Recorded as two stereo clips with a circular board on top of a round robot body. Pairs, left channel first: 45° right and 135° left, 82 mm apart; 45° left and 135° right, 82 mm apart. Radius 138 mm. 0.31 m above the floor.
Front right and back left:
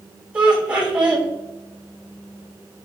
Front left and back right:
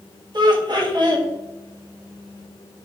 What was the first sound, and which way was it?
Laughter, 150° right.